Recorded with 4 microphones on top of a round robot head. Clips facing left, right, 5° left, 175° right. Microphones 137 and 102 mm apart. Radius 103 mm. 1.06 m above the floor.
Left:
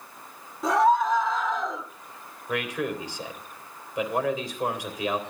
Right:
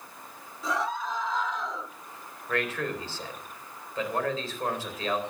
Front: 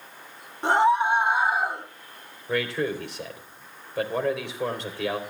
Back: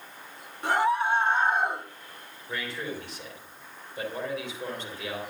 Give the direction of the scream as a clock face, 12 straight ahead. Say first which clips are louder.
Left 10 dB, front 4 dB; 10 o'clock.